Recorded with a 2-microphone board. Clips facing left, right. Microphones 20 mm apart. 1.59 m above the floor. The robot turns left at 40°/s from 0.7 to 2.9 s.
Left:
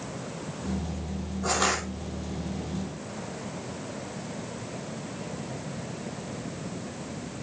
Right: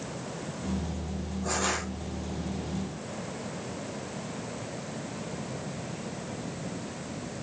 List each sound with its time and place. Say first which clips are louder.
1.4 s crushing: left 4 dB; 50° left (ahead or behind), 6 m; by 1.8 s 65° left (ahead or behind), 6 m